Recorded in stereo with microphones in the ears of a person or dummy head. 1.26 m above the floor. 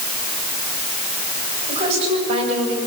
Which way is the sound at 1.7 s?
35° right (ahead or behind).